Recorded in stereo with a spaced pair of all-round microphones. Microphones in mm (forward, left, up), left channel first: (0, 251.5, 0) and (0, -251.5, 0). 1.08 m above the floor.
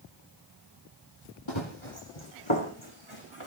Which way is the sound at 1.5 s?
65° left (ahead or behind).